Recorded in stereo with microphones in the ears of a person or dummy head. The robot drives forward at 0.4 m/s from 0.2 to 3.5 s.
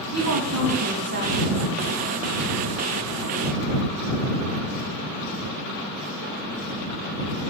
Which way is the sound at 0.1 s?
70° right (ahead or behind).